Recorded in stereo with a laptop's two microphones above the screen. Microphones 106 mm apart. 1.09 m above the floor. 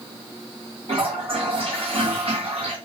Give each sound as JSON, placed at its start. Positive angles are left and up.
{"t": 0.9, "sound": "a toilet flushing", "side_deg": -65, "distance_m": 1.6}